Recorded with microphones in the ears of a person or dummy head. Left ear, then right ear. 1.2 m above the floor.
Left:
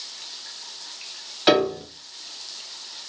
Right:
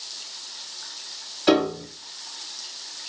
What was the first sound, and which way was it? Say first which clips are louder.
A piano: left 2 dB; 45° left (ahead or behind).